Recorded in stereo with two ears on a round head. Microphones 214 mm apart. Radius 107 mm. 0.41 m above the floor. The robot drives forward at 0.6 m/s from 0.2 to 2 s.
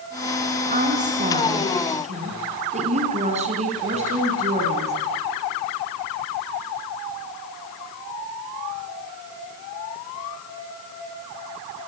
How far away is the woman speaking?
About 4 m.